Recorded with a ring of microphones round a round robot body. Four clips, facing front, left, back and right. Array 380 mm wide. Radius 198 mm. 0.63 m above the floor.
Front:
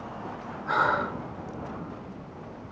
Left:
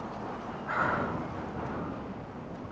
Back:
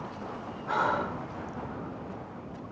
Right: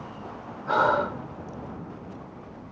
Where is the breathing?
85° right.